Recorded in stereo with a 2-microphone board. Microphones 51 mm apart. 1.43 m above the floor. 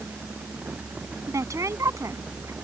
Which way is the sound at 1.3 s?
80° right.